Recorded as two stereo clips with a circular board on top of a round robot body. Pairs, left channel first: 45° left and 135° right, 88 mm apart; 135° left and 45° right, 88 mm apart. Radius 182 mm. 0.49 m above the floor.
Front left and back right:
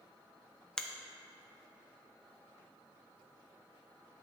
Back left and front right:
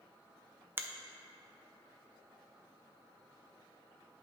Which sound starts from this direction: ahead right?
A finger snap, at 0.8 s.